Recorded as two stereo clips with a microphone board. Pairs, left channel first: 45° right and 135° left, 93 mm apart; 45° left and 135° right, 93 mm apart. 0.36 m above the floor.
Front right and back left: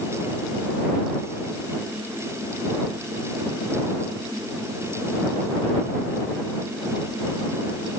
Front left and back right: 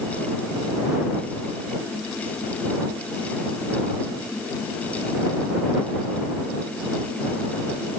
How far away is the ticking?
I don't hear ticking.